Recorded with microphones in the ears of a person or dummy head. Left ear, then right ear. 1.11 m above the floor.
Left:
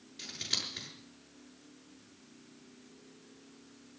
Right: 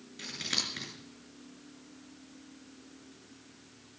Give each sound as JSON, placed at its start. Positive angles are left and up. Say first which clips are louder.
{"t": 0.2, "sound": "scissors", "louder": "right 2 dB", "side_deg": -15, "distance_m": 7.0}